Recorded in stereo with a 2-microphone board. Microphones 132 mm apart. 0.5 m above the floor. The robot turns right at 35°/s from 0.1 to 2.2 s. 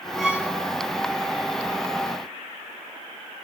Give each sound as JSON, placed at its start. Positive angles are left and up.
{"t": 0.2, "sound": "a violin", "side_deg": -5, "distance_m": 1.7}